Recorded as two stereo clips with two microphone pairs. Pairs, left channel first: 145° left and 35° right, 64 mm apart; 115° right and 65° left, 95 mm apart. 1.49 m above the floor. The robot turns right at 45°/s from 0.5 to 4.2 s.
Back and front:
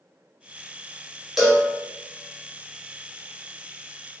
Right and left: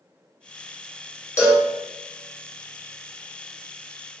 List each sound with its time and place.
1.4 s a cowbell: 120° right, 0.8 m; by 1.7 s 105° right, 0.8 m